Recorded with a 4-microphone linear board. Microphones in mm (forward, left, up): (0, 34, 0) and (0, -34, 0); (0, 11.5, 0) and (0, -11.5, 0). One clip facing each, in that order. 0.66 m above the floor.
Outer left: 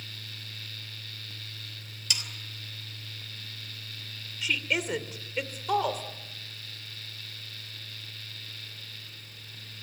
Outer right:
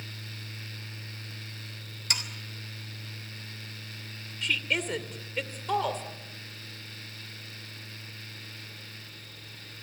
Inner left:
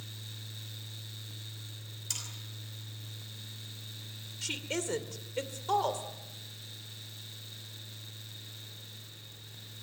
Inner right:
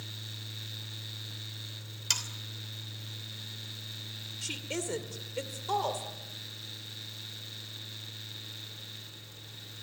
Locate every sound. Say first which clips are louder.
2.1 s sawing: outer right 2 dB, inner right 8 dB; 45° right (ahead or behind), 3 m
4.4 s a woman speaking: even, inner left 2 dB; 5° left (ahead or behind), 2 m